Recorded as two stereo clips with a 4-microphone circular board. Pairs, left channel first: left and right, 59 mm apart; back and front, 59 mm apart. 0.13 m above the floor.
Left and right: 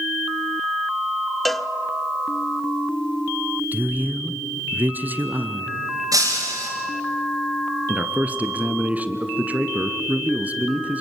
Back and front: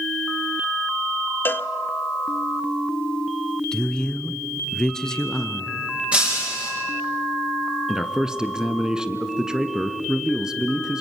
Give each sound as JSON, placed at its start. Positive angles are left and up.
{"t": 1.4, "sound": "a cowbell", "azimuth_deg": 175, "distance_m": 0.6}
{"t": 3.7, "sound": "a man speaking", "azimuth_deg": -115, "distance_m": 1.2}
{"t": 6.1, "sound": "breaking glass", "azimuth_deg": -70, "distance_m": 8.5}
{"t": 7.9, "sound": "a man speaking", "azimuth_deg": -70, "distance_m": 1.4}